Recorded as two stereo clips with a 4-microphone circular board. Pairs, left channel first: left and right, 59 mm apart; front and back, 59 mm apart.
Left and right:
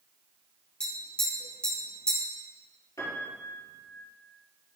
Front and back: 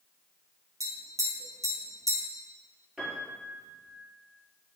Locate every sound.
0.8 s tapping: 165° left, 2.5 m
3.0 s a piano: 105° left, 4 m